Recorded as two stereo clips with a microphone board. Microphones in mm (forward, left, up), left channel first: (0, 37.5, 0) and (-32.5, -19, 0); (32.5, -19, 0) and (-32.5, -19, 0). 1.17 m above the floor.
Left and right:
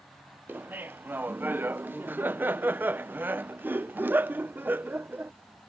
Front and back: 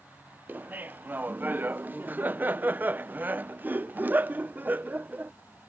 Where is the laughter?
150° right.